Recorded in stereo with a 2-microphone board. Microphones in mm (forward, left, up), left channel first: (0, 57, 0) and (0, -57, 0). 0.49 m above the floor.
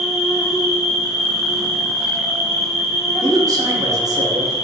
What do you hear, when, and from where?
0.0 s an insect: 25° left (ahead or behind), 1.5 m
3.2 s a man speaking: 30° right (ahead or behind), 0.7 m